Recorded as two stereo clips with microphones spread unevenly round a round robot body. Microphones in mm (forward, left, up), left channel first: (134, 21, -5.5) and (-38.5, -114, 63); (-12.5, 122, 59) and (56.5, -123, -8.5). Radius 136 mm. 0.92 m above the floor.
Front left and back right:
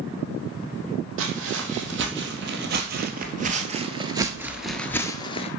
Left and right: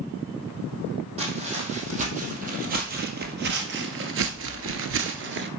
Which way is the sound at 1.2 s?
145° right.